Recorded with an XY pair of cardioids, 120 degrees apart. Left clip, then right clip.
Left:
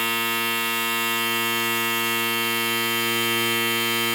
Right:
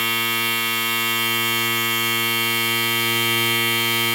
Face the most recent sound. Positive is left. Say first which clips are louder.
# right 2 dB
turn(degrees=-35)